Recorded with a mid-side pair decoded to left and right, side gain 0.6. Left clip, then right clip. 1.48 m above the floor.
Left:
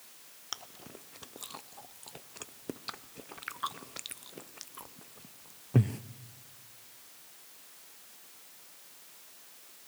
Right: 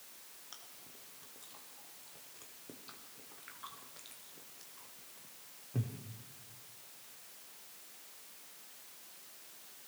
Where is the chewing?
60° left, 0.6 m.